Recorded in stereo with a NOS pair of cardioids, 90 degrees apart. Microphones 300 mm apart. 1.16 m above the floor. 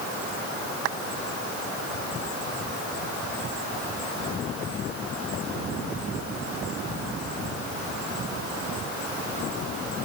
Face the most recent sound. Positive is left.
No sound to turn to.